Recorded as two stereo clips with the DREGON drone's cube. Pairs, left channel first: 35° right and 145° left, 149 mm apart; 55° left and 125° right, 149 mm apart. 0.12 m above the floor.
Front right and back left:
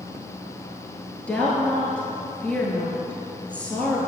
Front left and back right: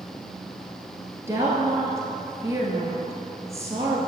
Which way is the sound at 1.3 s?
100° right.